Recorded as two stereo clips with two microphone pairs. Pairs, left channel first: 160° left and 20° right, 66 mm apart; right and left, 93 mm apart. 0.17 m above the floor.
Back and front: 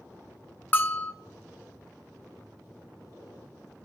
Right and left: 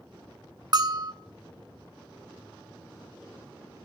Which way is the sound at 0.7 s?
110° left.